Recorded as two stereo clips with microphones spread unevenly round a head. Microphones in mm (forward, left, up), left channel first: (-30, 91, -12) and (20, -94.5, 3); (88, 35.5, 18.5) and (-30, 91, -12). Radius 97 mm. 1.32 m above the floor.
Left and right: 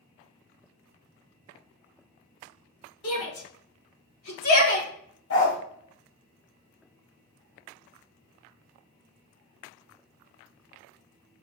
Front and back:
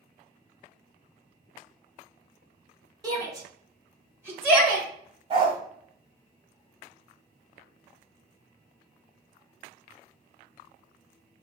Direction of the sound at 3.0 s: 90° left.